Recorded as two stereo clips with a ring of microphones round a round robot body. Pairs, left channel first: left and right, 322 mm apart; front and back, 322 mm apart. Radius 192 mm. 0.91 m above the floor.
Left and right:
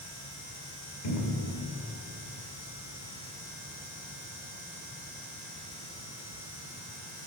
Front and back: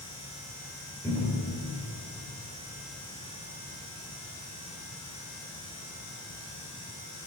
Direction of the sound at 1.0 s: 80° left.